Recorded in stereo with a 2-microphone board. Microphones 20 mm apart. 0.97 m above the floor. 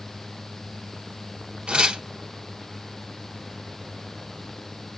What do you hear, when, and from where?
1.7 s tearing paper: 70° right (ahead or behind), 2.5 m